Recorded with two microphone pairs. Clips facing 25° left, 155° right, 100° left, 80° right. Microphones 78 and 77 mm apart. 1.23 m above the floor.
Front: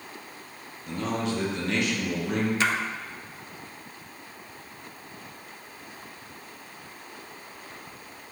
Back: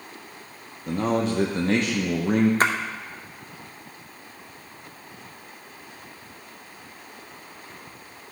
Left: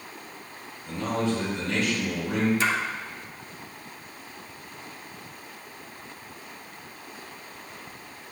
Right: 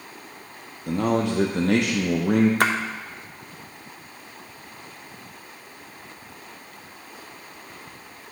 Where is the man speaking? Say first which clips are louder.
Back 5 dB, right 5 dB; 100° right, 0.8 m.